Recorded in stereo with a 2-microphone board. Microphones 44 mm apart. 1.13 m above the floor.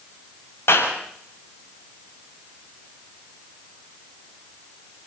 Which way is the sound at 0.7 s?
80° left.